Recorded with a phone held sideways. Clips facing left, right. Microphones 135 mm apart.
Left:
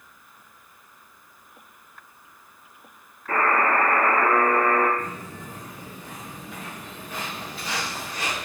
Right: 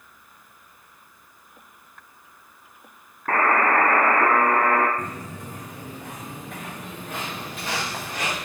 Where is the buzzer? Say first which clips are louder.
Right 2 dB; 70° right (ahead or behind), 2.0 m.